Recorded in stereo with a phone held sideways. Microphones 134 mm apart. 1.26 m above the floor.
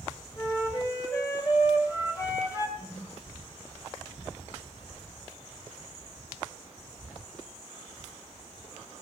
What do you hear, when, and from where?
0.4 s a flute: 30° left (ahead or behind), 3 m
2.8 s a whoosh: 65° left (ahead or behind), 5.5 m